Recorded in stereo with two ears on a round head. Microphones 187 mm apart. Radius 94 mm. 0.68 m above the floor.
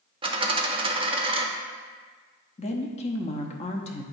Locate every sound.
0.2 s a dropped coin: 25° right (ahead or behind), 0.8 m
2.6 s a woman speaking: 30° left (ahead or behind), 0.8 m